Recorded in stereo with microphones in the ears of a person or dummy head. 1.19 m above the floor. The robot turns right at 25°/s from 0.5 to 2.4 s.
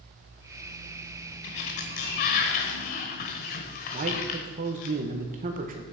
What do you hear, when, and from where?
1.4 s a sliding door: 40° left (ahead or behind), 1.2 m; by 4.9 s 35° left (ahead or behind), 1.2 m
3.9 s a man speaking: 35° right (ahead or behind), 1.3 m